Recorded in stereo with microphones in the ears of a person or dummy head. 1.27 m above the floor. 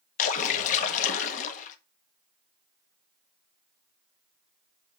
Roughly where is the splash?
Left.